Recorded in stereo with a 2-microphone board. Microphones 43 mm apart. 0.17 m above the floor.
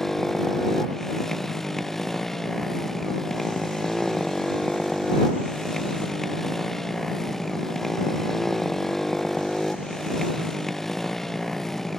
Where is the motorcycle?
5° left (ahead or behind).